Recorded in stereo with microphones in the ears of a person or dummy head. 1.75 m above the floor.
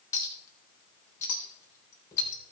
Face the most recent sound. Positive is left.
turn(degrees=25)  # may be behind; listen again after turning